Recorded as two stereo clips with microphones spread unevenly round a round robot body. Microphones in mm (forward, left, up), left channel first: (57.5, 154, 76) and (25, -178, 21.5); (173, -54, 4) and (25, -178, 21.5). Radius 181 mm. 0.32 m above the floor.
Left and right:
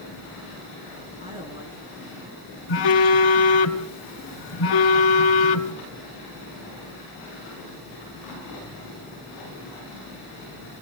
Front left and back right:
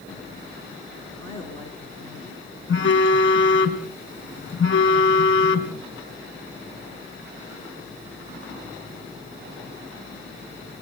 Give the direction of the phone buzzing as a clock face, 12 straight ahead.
8 o'clock.